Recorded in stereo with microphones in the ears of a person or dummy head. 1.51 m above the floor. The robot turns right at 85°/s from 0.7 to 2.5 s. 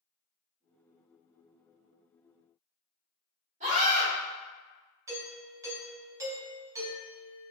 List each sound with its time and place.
3.6 s a scream: 40° right (ahead or behind), 1.7 m
5.1 s a doorbell: 20° right (ahead or behind), 0.6 m